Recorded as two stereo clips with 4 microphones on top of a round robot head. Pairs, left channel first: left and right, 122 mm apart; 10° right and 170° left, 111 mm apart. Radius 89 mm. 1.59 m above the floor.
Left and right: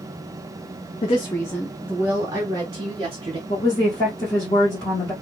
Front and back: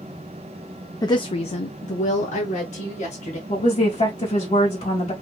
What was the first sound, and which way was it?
A woman speaking, 50° left.